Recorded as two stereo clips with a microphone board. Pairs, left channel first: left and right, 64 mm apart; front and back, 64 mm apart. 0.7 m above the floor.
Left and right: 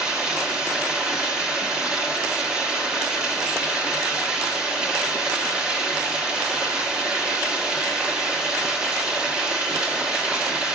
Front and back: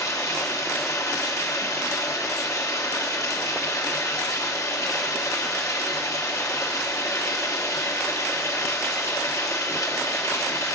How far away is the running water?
About 1.4 m.